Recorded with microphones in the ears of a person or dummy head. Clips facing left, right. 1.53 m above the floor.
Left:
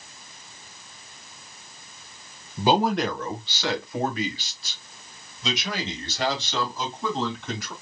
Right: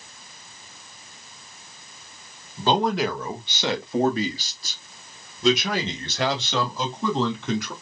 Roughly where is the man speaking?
Centre.